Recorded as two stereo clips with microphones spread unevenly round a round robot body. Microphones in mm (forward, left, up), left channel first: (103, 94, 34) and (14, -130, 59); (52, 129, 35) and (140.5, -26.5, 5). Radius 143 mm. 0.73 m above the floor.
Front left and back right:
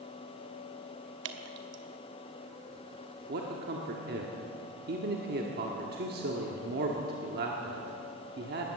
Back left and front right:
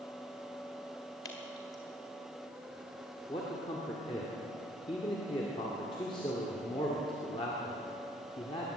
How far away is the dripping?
About 1.2 m.